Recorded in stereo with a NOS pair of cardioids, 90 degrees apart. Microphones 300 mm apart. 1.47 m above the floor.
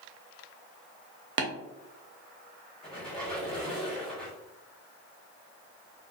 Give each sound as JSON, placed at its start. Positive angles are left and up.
{"t": 1.4, "sound": "tapping", "azimuth_deg": -40, "distance_m": 0.6}
{"t": 2.8, "sound": "a squeak", "azimuth_deg": 0, "distance_m": 1.3}